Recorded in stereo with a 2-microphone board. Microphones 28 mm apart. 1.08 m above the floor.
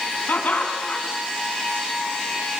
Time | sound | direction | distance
0.3 | laughter | 90° left | 8 m